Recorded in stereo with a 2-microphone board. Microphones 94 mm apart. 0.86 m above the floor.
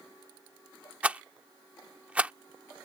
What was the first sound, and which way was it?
A rattle, 15° right (ahead or behind).